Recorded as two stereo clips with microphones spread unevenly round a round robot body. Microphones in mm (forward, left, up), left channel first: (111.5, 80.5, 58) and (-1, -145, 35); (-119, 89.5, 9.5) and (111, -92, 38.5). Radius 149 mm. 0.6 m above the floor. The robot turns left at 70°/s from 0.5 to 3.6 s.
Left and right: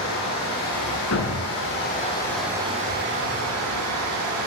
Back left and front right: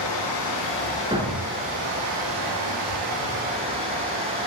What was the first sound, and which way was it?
Running water, 110° left.